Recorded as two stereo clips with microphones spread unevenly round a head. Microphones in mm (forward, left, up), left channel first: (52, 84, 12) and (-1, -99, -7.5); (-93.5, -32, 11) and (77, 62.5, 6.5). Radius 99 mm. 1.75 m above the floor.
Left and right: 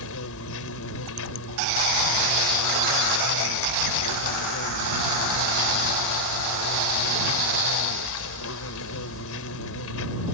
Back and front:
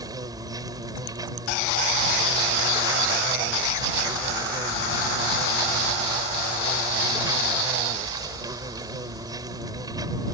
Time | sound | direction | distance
0.0 | an insect | 100° left | ?